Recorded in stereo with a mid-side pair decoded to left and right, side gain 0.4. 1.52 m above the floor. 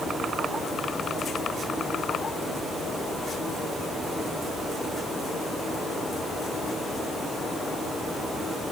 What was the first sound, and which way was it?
Only background noise.